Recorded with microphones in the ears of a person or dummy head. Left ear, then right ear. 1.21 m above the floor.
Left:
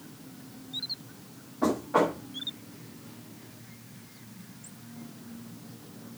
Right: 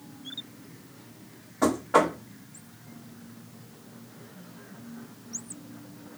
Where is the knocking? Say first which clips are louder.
Right 3 dB; 75° right (ahead or behind), 2 m.